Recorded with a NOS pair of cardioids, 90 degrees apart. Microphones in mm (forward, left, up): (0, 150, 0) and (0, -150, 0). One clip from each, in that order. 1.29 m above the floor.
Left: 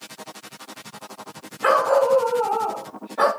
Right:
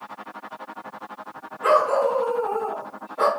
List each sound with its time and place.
1.6 s a dog barking: 50° left, 2.5 m